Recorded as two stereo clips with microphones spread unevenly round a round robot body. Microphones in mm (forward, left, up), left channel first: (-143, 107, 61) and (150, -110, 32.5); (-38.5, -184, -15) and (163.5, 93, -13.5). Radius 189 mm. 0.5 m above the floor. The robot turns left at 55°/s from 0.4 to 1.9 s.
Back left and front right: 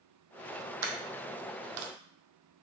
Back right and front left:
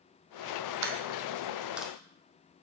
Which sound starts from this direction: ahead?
A dropped coin, at 0.8 s.